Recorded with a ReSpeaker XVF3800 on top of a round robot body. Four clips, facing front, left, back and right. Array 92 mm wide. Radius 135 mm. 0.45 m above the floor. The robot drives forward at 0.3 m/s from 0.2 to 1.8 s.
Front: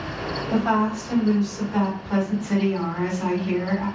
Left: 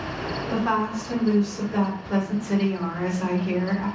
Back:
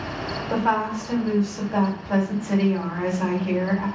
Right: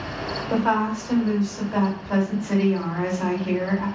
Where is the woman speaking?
135° right, 3 m; by 3.9 s 140° right, 3 m.